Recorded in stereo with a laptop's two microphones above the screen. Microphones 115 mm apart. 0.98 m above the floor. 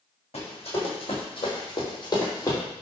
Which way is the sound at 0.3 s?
60° left (ahead or behind).